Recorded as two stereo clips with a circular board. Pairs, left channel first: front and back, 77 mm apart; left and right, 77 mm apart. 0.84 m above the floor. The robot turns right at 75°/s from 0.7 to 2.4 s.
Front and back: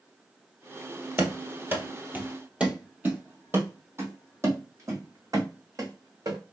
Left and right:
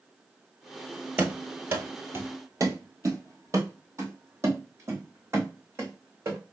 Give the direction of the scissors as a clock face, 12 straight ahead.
No scissors in this recording.